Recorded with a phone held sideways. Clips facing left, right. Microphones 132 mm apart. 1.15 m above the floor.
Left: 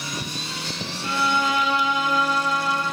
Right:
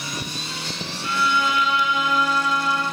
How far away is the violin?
About 1.8 m.